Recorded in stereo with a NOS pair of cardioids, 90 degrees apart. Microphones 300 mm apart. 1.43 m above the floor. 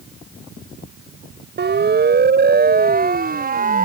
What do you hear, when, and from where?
1.6 s a siren: 35° right; by 3.9 s 30° right